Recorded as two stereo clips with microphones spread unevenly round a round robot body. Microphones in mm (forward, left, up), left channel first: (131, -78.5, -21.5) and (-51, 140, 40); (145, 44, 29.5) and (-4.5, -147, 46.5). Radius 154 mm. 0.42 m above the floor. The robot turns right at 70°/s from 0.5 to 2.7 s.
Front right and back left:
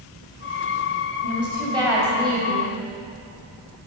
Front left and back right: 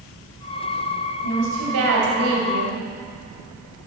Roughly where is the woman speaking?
Behind.